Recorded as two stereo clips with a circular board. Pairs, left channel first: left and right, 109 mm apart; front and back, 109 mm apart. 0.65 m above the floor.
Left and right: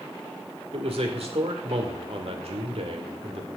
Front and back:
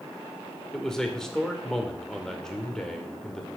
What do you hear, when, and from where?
0.7 s a man speaking: 85° right, 2.5 m